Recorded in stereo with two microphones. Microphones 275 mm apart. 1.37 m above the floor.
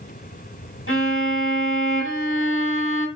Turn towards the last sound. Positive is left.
turn(degrees=50)  # may be behind; listen again after turning